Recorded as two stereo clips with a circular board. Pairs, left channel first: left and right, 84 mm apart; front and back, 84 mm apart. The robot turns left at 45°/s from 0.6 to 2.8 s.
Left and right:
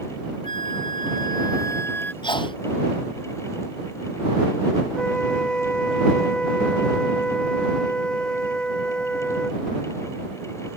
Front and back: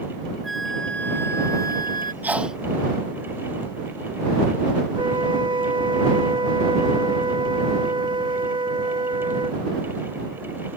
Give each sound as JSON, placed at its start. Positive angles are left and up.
{"t": 0.4, "sound": "a flute", "azimuth_deg": 90}
{"t": 2.2, "sound": "a sneeze", "azimuth_deg": 110}
{"t": 5.0, "sound": "a flute", "azimuth_deg": 170}